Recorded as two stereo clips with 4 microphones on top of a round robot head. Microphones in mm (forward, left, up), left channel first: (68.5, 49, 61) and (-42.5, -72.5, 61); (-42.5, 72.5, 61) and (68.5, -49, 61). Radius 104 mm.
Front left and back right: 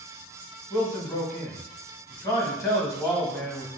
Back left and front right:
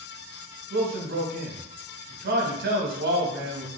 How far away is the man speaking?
About 1.2 m.